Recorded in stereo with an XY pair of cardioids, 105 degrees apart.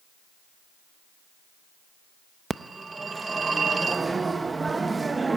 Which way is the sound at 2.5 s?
25° right.